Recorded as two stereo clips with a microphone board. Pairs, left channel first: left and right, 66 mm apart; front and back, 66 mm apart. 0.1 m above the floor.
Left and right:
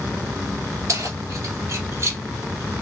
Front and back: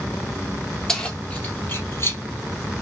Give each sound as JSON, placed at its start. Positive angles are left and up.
{"t": 0.9, "sound": "keys jangling", "azimuth_deg": -75, "distance_m": 1.4}